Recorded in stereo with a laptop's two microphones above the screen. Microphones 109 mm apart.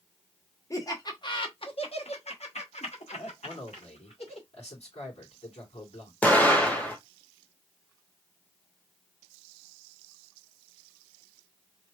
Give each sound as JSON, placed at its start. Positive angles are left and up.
{"t": 0.7, "sound": "laughter", "side_deg": 30, "distance_m": 1.2}
{"t": 3.4, "sound": "a man speaking", "side_deg": 75, "distance_m": 3.5}
{"t": 6.2, "sound": "an explosion", "side_deg": 15, "distance_m": 1.1}